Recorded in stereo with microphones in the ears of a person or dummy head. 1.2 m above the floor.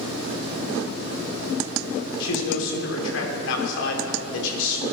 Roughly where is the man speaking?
Left.